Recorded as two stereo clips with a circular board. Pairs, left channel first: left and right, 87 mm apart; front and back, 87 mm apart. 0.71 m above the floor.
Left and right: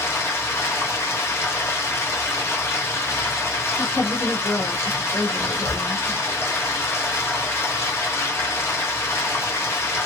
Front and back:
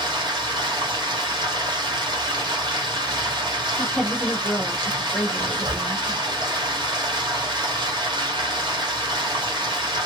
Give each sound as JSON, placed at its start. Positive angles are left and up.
{"t": 0.0, "sound": "running water", "azimuth_deg": 150, "distance_m": 1.0}
{"t": 3.8, "sound": "a woman speaking", "azimuth_deg": 80, "distance_m": 1.2}
{"t": 5.4, "sound": "a zipper", "azimuth_deg": 140, "distance_m": 0.7}